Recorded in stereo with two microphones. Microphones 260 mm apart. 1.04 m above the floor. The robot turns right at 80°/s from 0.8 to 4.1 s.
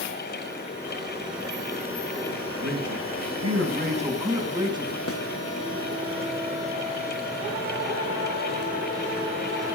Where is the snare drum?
55° left (ahead or behind), 0.9 m.